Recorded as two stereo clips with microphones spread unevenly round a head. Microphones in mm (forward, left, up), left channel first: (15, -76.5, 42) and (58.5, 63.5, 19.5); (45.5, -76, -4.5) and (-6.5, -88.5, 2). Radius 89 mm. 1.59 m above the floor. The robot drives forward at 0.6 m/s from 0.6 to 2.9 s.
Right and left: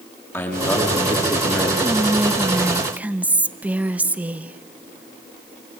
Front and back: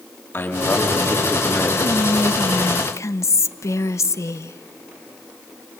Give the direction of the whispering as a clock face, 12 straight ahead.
12 o'clock.